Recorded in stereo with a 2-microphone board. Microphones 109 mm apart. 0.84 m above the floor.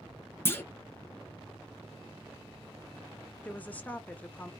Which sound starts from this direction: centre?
A woman speaking, at 3.4 s.